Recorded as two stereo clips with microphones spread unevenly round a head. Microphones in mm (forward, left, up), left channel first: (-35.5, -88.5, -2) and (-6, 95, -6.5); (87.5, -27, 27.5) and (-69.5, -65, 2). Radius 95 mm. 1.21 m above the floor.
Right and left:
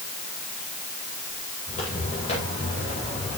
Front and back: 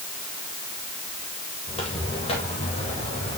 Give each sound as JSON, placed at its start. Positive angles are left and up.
{"t": 1.7, "sound": "footsteps", "azimuth_deg": -40, "distance_m": 9.0}